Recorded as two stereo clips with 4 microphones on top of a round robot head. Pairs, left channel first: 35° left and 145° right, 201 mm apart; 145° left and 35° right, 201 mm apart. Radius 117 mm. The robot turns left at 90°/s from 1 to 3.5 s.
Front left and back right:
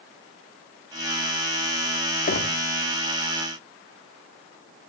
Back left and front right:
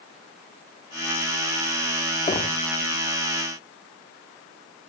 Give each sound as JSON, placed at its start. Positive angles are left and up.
{"t": 2.3, "sound": "knocking", "azimuth_deg": 80, "distance_m": 2.5}